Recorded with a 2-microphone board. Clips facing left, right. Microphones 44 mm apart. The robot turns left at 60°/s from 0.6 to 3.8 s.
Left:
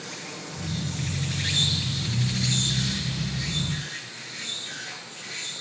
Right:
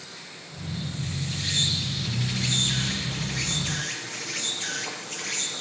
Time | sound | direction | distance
0.0 | an insect | 85° left | 3.5 m